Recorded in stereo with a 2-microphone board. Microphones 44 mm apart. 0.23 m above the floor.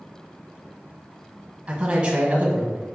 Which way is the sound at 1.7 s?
30° right (ahead or behind).